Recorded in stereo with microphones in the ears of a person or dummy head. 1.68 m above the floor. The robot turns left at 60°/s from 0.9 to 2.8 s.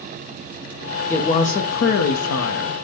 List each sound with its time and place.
1.1 s a woman speaking: 170° left, 0.6 m; by 2.8 s 70° left, 0.6 m